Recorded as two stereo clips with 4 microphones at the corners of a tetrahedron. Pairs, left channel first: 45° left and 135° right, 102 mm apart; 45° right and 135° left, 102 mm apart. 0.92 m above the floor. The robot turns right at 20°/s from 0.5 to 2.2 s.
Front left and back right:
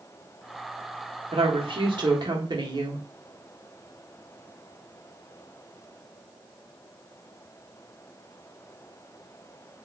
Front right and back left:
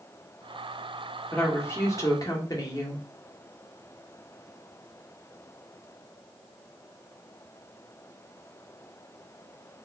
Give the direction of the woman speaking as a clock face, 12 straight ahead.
4 o'clock.